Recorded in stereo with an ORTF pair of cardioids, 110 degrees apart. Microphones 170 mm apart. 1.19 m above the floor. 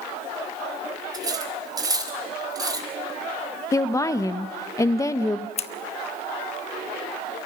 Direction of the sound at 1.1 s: 20° right.